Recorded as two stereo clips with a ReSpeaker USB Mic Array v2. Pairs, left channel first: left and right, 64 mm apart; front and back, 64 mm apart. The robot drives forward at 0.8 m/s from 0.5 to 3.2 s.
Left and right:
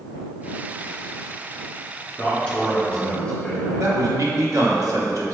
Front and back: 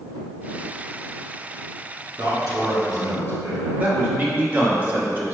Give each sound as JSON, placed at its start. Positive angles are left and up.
{"t": 2.2, "sound": "a man speaking", "azimuth_deg": 170, "distance_m": 1.9}
{"t": 3.8, "sound": "a man speaking", "azimuth_deg": -115, "distance_m": 0.9}